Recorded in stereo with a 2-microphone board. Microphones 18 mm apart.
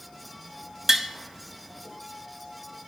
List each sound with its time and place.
0.9 s tapping: 25° right (ahead or behind), 1.0 m